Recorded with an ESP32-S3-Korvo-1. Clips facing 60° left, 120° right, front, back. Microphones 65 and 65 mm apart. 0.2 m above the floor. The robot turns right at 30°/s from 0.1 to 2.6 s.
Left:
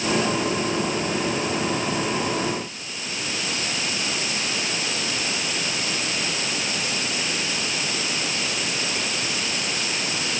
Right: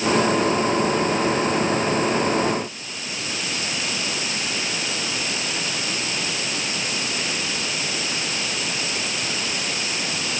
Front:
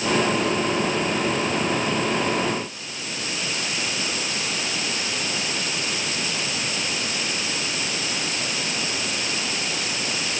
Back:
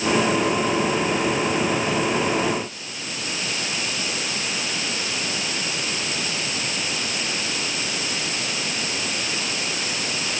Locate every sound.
Only background noise.